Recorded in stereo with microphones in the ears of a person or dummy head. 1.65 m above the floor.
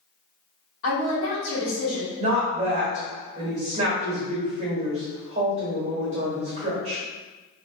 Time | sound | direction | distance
0.8 | a woman speaking | 60° left (ahead or behind) | 0.8 m
2.2 | a woman speaking | 30° right (ahead or behind) | 1.3 m